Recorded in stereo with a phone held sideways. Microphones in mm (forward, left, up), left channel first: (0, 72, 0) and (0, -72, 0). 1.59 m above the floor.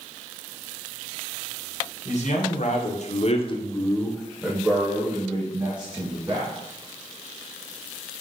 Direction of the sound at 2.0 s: 55° left (ahead or behind).